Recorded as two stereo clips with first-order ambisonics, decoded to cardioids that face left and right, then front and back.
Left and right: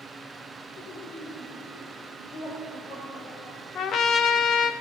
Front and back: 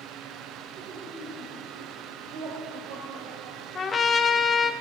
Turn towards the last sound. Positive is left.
turn(degrees=55)